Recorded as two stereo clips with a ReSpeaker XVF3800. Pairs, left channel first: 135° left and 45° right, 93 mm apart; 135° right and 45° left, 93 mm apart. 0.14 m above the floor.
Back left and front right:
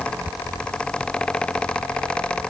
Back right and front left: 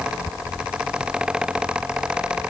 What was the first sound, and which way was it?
Only background noise.